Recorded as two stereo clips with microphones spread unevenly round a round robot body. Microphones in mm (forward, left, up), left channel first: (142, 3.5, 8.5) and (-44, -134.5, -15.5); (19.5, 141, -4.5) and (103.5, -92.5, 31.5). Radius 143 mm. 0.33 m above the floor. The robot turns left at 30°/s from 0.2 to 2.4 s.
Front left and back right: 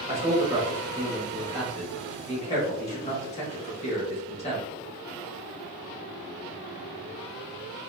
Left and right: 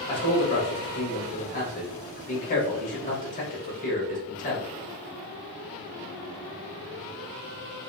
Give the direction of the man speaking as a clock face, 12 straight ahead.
7 o'clock.